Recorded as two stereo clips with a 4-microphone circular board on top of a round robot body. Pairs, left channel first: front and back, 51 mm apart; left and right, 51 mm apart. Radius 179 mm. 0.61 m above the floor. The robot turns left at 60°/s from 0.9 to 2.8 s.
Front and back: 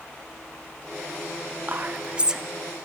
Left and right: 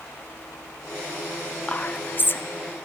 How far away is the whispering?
About 1.2 m.